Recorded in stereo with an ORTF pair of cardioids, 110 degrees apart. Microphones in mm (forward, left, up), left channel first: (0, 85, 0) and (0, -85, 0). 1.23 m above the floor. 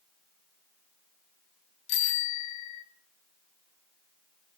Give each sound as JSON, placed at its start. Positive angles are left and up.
{"t": 1.9, "sound": "a bicycle bell", "azimuth_deg": 40, "distance_m": 3.0}